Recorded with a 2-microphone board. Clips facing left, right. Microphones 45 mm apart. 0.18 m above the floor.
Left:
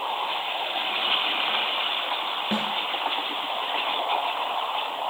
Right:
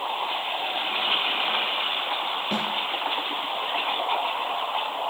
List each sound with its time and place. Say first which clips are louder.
2.5 s a snare drum: left 1 dB; 30° left (ahead or behind), 1.9 m